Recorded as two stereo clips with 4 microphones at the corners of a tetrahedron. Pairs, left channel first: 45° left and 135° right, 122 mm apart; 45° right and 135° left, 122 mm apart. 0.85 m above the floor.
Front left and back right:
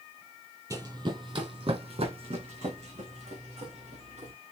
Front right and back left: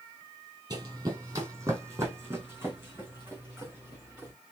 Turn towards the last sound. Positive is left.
turn(degrees=-150)